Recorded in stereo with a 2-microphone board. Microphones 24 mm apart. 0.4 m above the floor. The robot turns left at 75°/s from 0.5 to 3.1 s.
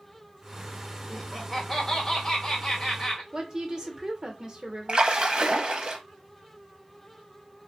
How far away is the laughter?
About 0.8 m.